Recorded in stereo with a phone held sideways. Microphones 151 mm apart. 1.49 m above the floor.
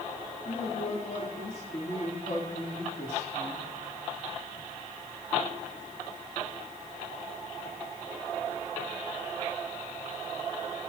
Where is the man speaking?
65° left (ahead or behind), 4.5 m.